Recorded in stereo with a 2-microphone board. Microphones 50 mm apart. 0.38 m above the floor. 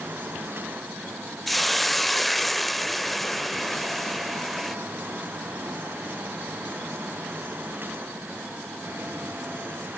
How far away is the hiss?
About 0.6 m.